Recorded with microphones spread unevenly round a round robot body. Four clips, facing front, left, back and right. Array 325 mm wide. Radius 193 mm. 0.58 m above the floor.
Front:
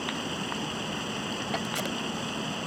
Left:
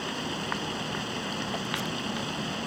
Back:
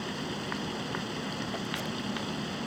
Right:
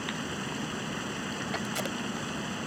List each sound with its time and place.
0.0 s running water: 10° right
1.6 s tape being pulled: 40° right